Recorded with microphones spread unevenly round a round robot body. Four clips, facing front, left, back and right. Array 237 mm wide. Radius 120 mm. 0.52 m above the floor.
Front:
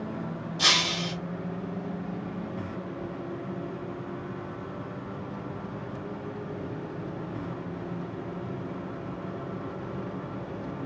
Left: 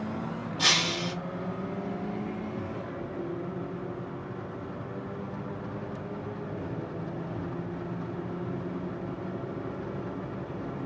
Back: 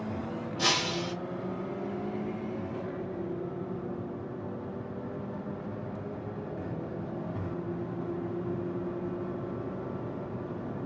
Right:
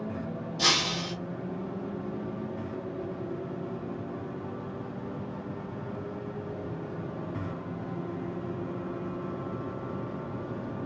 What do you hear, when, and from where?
0.6 s breaking glass: 130° right, 1.5 m